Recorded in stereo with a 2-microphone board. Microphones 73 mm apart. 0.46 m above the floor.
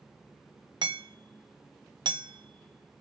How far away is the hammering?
About 0.8 m.